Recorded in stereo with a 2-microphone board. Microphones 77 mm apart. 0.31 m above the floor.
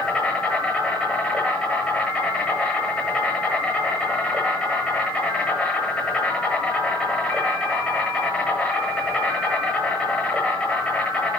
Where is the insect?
10° left (ahead or behind), 9 m.